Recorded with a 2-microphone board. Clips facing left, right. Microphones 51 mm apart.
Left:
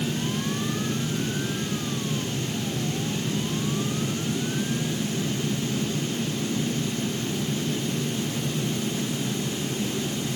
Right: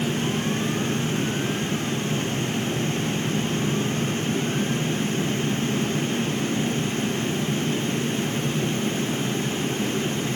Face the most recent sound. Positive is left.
No sound to turn to.